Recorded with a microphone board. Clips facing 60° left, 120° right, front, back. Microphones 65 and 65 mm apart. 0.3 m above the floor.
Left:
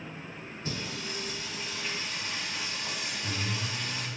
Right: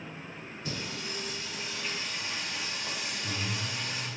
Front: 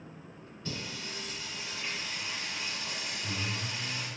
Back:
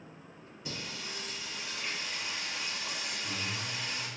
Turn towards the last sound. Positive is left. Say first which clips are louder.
# left 1 dB, front 2 dB
turn(degrees=105)